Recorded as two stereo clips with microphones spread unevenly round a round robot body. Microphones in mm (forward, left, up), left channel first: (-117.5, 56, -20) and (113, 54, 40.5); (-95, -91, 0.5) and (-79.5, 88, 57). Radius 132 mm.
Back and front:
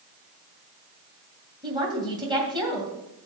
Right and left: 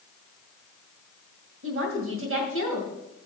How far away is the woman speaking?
About 2 m.